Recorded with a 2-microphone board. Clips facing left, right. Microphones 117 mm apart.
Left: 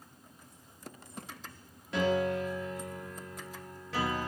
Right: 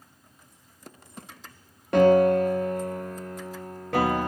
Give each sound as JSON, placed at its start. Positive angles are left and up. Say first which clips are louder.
{"t": 1.9, "sound": "a piano", "louder": "right 12 dB", "side_deg": -60, "distance_m": 1.6}